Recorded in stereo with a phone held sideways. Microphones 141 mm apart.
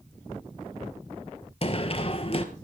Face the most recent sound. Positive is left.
turn(degrees=45)  # may be behind; listen again after turning